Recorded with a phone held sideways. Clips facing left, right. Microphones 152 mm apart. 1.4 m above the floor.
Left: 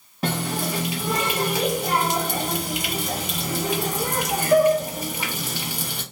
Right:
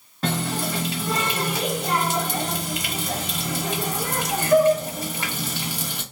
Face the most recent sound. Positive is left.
turn(degrees=10)  # may be behind; listen again after turning